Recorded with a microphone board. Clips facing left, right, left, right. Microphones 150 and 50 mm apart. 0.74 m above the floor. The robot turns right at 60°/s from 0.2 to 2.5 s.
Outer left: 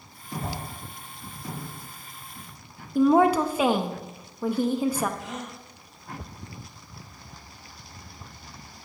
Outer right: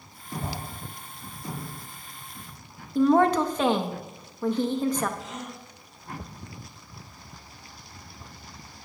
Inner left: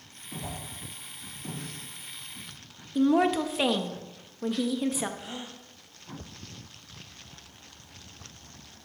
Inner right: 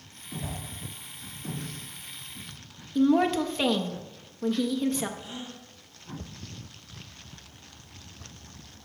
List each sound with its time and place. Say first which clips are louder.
0.4 s a whoosh: outer left 1 dB, inner right 1 dB; 35° right (ahead or behind), 3.5 m; by 0.6 s 25° right (ahead or behind), 3.5 m
3.0 s a woman speaking: outer left 1 dB, inner right 1 dB; 10° left (ahead or behind), 0.5 m
5.2 s a gasp: outer left 1 dB, even; 85° left, 2.5 m